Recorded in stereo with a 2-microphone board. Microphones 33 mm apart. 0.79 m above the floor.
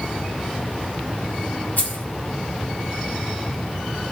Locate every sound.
1.8 s keys jangling: 65° left (ahead or behind), 1.1 m